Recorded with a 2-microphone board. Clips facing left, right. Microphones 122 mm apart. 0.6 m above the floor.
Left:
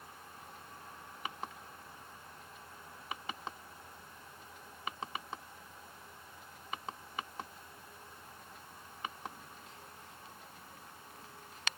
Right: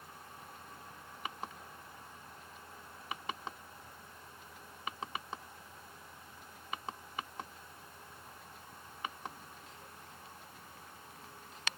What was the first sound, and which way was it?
Only background noise.